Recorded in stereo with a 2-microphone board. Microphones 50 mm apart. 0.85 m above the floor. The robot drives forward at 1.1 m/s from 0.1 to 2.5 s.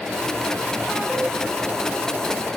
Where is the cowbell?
25° right (ahead or behind), 4 m.